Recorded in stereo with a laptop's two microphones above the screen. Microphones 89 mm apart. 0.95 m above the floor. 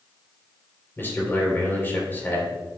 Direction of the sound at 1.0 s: 25° left (ahead or behind).